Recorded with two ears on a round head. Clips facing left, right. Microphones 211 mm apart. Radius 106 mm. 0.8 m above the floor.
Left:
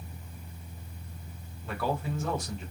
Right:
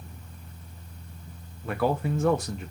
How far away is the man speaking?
About 0.6 m.